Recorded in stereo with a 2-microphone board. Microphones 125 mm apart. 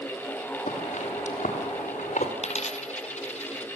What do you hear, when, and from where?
0.7 s footsteps: 75° left (ahead or behind), 6 m; by 2.3 s 80° left, 5.5 m
2.4 s a dropped coin: 65° left (ahead or behind), 1.3 m